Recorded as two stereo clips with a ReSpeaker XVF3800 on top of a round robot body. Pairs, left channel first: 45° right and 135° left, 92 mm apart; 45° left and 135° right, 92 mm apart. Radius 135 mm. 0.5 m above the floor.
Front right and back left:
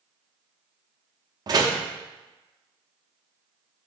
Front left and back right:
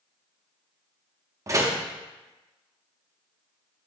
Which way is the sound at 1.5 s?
175° left.